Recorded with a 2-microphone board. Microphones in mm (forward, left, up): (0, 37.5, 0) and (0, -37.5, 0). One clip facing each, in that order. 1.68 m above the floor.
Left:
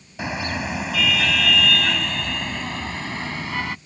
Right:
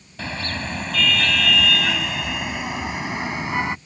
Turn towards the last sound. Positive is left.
turn(degrees=-20)  # may be behind; listen again after turning